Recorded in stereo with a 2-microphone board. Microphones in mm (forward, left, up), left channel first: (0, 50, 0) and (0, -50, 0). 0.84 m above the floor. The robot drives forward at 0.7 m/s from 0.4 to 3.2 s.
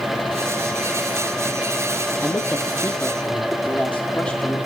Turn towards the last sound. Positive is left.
turn(degrees=15)  # may be behind; listen again after turning